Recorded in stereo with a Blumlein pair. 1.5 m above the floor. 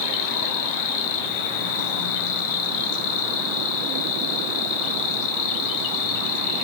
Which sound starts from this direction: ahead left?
An insect, at 0.0 s.